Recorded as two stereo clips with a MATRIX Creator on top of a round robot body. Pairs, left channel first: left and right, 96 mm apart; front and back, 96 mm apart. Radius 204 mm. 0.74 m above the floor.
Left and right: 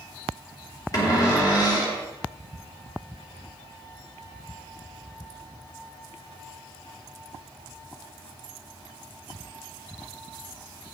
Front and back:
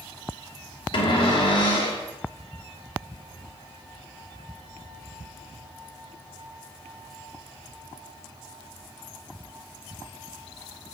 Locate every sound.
0.9 s a cupboard door: 40° left, 2.5 m